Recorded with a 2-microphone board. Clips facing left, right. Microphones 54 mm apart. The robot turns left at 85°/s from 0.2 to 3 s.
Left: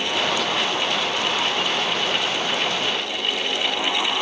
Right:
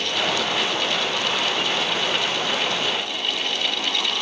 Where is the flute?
No flute in this recording.